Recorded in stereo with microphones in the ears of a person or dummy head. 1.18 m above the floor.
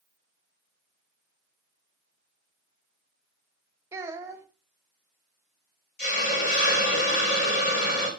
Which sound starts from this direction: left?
A hiss, at 6.0 s.